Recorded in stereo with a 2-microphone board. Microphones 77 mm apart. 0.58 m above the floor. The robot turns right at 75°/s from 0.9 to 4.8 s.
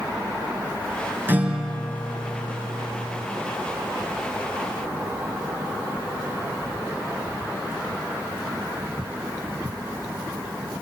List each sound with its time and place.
1.3 s a guitar: 25° right, 3.5 m; by 3.3 s 125° left, 3.5 m